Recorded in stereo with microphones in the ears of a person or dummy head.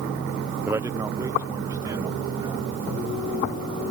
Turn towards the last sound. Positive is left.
turn(degrees=-20)  # may be behind; listen again after turning